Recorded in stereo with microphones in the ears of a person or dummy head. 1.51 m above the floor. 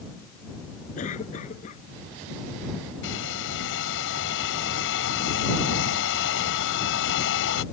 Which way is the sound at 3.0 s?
75° left (ahead or behind).